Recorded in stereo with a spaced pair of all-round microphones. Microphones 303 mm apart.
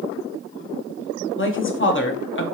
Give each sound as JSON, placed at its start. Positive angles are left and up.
{"t": 1.4, "sound": "a woman speaking", "side_deg": 40, "distance_m": 0.7}